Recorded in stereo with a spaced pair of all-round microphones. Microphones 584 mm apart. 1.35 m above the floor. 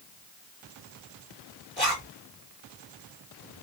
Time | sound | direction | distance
1.8 | a zipper | 25° left (ahead or behind) | 3 m